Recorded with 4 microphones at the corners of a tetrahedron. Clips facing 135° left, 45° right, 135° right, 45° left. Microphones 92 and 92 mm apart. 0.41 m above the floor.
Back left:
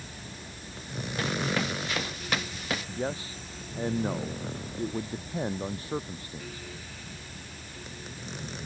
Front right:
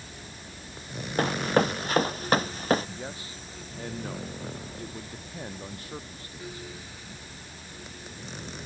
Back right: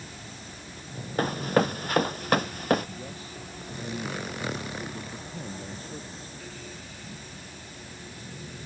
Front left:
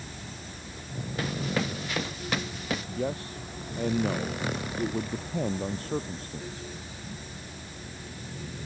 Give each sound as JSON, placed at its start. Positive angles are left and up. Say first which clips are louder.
{"t": 1.2, "sound": "running footsteps", "louder": "front right 6 dB, back right 6 dB", "azimuth_deg": -90}
{"t": 3.0, "sound": "a man speaking", "louder": "back left 6 dB, front left 8 dB", "azimuth_deg": 70}